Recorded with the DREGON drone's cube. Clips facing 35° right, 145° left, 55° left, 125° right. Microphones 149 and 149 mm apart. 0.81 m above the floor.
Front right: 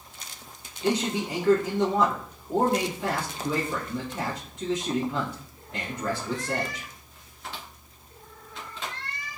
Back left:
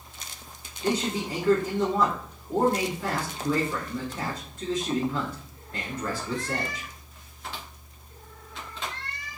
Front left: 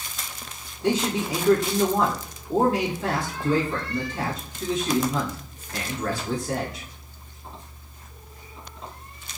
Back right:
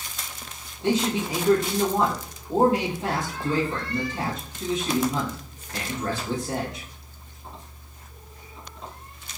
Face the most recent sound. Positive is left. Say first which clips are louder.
# front right 1 dB, even
turn(degrees=-85)